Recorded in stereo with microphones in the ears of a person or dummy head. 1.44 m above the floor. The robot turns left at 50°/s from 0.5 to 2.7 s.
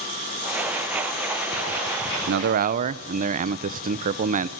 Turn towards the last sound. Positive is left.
turn(degrees=-40)  # may be behind; listen again after turning